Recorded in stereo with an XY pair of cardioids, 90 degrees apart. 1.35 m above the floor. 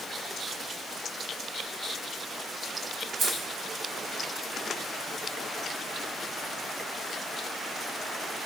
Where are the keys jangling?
70° right, 1.6 m.